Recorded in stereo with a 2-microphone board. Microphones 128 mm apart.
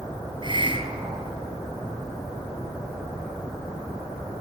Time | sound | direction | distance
0.4 | a hiss | 40° right (ahead or behind) | 2.5 m